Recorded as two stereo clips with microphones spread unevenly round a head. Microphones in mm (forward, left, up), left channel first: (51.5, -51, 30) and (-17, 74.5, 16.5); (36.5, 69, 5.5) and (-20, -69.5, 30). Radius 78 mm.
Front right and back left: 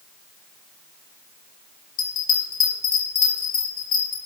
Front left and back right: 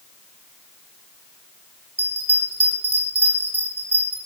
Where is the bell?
35° right, 5 m.